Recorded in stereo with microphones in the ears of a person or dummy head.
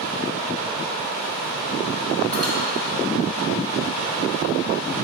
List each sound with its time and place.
2.3 s cutlery clinking: 55° right (ahead or behind), 3 m